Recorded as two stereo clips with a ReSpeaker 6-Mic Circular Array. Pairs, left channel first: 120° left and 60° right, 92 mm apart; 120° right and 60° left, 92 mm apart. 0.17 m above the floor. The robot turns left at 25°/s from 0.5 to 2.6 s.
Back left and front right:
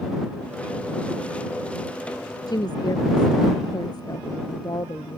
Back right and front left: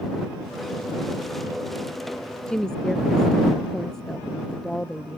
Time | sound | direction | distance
2.5 | a woman speaking | 160° left | ?